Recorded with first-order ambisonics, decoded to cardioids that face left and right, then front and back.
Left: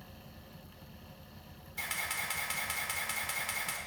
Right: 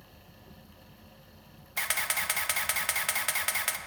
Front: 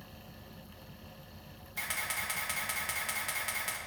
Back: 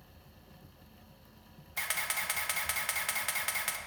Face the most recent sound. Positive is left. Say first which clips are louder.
# right 6 dB, back 1 dB
turn(degrees=-105)